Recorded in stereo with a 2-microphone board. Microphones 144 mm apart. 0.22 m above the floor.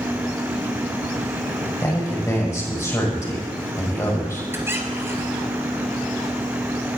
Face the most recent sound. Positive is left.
turn(degrees=-15)  # may be behind; listen again after turning